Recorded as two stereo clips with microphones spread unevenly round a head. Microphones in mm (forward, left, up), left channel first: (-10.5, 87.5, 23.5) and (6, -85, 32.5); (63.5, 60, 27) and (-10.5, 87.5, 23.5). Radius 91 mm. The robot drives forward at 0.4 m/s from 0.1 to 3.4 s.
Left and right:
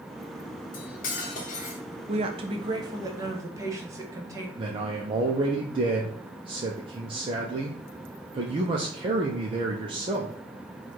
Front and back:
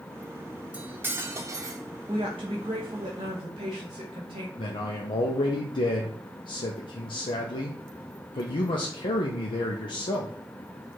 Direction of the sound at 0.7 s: 90° left.